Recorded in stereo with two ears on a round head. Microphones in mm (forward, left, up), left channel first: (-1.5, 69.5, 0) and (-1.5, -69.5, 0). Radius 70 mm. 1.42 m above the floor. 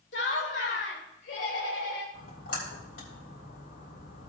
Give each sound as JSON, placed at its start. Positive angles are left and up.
{"t": 0.1, "sound": "laughter", "side_deg": 85, "distance_m": 2.5}
{"t": 2.1, "sound": "a splash", "side_deg": 70, "distance_m": 3.5}